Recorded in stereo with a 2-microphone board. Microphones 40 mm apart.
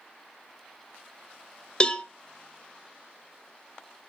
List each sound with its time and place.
1.8 s a cowbell: 25° left (ahead or behind), 0.6 m